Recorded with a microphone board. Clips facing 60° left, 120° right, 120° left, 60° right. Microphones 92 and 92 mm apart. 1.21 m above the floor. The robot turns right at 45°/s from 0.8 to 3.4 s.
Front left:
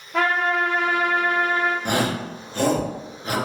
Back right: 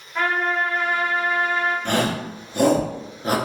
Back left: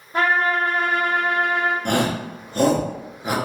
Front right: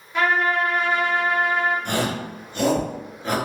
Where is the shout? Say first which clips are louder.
Back right 1 dB, back left 3 dB; 135° left, 0.9 m; by 3.4 s 160° right, 0.9 m.